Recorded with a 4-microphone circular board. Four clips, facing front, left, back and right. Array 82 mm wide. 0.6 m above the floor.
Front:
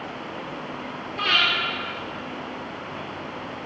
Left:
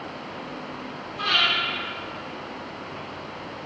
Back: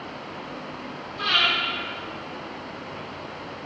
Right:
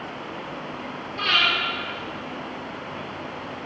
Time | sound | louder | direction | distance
1.2 | breathing | right 1 dB, front 1 dB | 25° right | 6.5 m